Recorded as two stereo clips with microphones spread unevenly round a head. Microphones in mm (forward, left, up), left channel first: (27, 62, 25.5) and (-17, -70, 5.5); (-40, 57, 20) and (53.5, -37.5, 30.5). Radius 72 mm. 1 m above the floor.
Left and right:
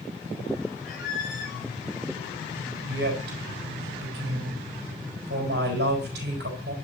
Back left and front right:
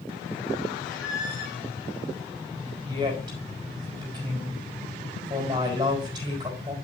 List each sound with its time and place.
0.8 s a squeak: 40° left, 5.5 m
2.9 s a woman speaking: 110° right, 4 m